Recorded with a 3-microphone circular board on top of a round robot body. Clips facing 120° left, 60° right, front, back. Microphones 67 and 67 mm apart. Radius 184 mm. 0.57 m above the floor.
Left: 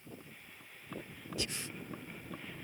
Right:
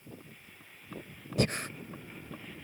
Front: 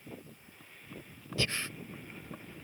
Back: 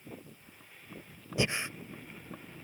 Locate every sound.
1.4 s breathing: 110° right